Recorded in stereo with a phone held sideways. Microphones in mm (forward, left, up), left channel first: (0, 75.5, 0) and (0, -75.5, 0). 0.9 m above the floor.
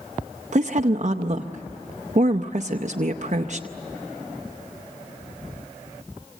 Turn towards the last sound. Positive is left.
turn(degrees=-50)  # may be behind; listen again after turning